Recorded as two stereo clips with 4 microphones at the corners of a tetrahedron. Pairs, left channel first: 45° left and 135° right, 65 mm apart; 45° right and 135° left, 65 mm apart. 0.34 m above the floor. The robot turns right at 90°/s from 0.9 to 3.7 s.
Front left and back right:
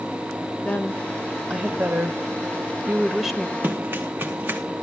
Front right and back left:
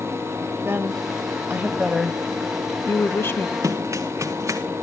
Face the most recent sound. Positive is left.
turn(degrees=170)